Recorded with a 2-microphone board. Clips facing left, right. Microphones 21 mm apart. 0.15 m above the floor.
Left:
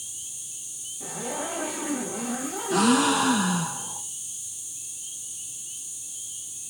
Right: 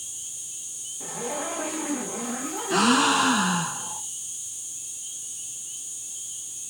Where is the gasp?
30° right (ahead or behind), 0.9 m.